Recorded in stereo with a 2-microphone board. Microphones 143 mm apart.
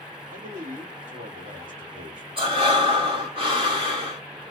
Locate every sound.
0.3 s a man speaking: 65° right (ahead or behind), 2.5 m
2.4 s breathing: 40° right (ahead or behind), 1.2 m